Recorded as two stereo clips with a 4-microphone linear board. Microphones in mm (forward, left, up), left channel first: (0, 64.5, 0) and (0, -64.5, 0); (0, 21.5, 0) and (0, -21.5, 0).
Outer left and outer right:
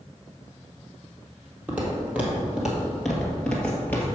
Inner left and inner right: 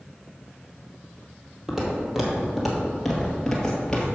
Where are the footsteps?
15° right (ahead or behind), 2 m; by 4.0 s 15° left (ahead or behind), 1.6 m.